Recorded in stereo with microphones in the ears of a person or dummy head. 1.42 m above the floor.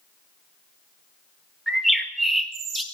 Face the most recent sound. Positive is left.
turn(degrees=0)  # may be behind; listen again after turning